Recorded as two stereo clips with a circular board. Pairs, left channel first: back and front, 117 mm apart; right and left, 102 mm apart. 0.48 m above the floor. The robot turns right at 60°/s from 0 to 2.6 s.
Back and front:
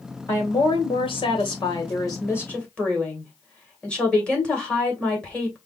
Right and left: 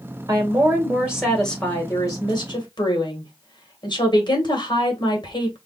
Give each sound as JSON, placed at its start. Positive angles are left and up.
{"t": 0.3, "sound": "a woman speaking", "azimuth_deg": 120, "distance_m": 1.8}